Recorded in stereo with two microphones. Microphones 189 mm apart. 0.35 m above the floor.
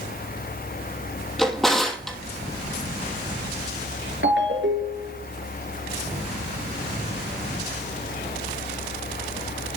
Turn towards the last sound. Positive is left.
turn(degrees=-80)